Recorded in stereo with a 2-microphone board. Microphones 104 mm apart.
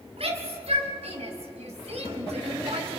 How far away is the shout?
About 6.5 m.